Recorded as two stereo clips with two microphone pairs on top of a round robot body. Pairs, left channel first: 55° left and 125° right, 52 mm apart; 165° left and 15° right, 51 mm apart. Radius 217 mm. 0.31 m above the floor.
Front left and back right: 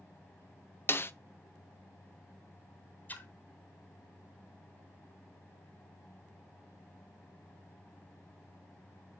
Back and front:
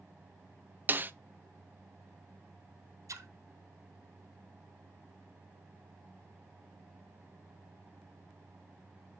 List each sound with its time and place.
0.9 s a snare drum: 15° left, 1.0 m
3.1 s a splash: 5° right, 3 m